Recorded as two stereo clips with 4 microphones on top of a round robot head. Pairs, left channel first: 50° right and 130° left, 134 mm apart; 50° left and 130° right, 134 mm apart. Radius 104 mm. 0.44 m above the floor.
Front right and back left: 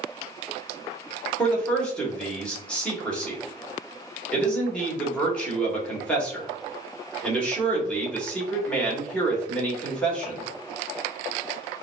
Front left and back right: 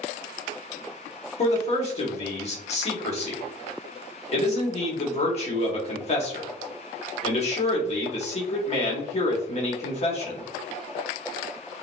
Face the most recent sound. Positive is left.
turn(degrees=30)